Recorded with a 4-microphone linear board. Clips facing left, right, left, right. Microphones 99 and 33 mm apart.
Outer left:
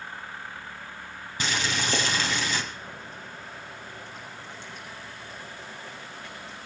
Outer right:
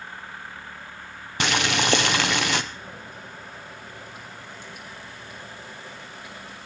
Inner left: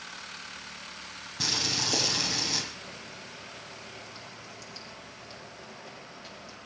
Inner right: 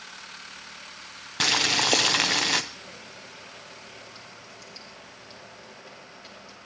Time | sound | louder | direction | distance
1.4 | boiling | outer right 6 dB, inner right 8 dB | 65° right (ahead or behind) | 0.8 m
2.7 | boiling | outer right 1 dB, even | 10° right (ahead or behind) | 6 m